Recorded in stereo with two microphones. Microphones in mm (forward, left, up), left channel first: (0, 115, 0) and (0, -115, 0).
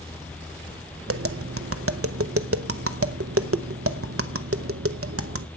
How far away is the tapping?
About 0.7 m.